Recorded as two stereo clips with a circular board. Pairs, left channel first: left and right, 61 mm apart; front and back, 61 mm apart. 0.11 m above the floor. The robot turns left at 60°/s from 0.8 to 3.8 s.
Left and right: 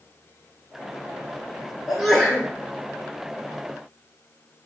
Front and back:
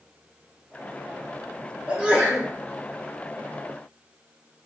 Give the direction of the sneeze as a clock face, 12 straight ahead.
6 o'clock.